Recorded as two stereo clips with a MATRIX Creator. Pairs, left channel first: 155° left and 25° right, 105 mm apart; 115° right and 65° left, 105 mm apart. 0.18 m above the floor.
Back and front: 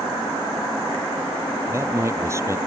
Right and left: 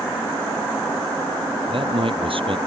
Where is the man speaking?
40° left.